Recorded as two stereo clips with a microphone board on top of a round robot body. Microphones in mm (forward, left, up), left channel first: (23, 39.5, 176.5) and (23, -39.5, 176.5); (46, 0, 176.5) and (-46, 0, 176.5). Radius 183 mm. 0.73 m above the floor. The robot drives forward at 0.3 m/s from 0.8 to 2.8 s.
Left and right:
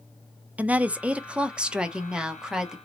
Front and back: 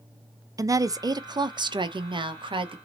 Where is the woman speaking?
155° right, 0.5 m; by 2.8 s 170° right, 1.0 m.